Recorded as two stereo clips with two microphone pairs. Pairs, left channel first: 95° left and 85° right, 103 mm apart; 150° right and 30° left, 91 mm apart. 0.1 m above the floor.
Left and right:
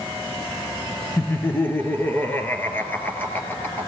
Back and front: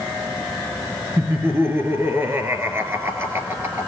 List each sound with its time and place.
1.2 s laughter: 50° left, 1.7 m